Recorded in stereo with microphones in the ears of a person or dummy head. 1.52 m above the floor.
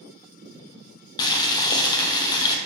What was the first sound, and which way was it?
Boiling, 20° left (ahead or behind).